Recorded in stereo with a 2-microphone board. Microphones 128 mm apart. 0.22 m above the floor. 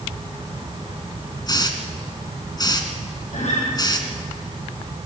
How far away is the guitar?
About 6.5 m.